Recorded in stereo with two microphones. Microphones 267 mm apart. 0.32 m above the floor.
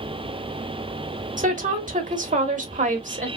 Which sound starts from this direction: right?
A woman speaking, at 1.4 s.